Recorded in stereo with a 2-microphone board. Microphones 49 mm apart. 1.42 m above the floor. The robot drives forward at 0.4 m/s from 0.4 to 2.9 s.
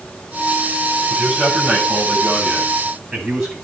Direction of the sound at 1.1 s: 10° right (ahead or behind).